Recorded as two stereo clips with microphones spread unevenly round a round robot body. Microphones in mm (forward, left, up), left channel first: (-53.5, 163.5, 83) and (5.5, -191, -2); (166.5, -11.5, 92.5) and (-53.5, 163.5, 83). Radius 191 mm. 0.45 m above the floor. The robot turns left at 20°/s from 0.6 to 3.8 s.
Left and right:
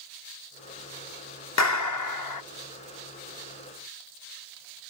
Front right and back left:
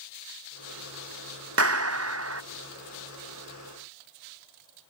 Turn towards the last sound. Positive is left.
turn(degrees=105)